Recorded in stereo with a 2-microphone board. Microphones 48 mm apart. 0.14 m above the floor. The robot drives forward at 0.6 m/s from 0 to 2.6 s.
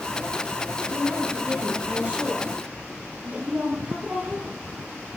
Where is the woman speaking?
35° right (ahead or behind), 6.5 m; by 4.6 s 30° right (ahead or behind), 7 m.